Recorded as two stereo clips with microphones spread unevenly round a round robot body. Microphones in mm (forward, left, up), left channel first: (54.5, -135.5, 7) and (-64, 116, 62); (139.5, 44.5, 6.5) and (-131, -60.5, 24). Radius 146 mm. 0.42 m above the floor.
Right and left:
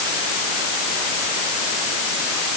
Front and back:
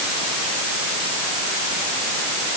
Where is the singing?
No singing in this recording.